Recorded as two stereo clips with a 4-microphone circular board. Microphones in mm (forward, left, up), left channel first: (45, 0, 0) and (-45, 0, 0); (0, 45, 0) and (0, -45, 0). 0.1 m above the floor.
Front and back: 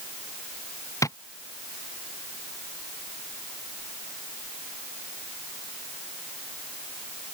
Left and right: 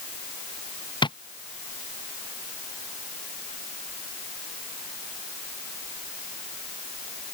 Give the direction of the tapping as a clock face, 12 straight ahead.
10 o'clock.